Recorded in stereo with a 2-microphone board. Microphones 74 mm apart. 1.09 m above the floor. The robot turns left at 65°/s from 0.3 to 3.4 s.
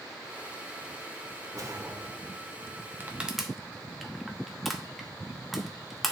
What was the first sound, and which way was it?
A whoosh, 110° right.